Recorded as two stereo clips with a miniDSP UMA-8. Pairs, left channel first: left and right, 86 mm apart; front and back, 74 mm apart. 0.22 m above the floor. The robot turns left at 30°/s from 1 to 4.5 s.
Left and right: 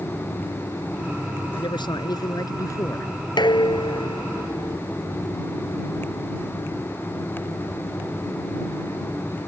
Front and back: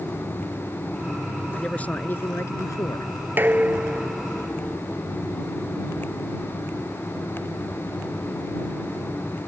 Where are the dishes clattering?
120° left; by 4.8 s 85° left.